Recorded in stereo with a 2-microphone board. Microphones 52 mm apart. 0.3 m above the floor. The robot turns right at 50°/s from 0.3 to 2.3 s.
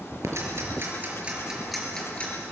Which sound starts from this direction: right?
Ticking, at 0.2 s.